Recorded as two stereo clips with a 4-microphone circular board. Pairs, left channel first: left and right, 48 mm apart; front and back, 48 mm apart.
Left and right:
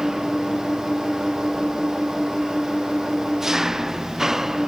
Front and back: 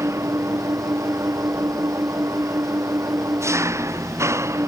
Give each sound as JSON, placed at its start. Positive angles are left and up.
{"t": 0.0, "sound": "an engine running", "azimuth_deg": -170}